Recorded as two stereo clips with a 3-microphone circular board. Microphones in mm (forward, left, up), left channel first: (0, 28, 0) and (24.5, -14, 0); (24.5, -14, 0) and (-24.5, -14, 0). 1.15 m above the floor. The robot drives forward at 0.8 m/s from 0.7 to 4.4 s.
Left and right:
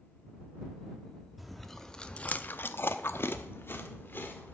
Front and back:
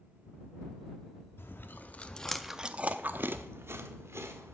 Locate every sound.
1.4 s chewing: 30° left, 1.0 m; by 4.5 s 165° left, 1.7 m